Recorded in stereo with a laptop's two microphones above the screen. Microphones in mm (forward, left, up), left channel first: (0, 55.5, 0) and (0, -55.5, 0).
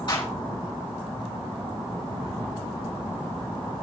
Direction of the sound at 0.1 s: 45° left (ahead or behind).